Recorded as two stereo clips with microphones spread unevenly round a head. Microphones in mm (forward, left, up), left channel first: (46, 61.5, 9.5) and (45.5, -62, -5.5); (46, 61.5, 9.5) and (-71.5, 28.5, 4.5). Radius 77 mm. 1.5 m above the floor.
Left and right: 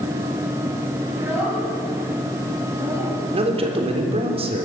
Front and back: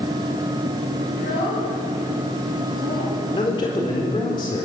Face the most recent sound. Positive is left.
turn(degrees=-50)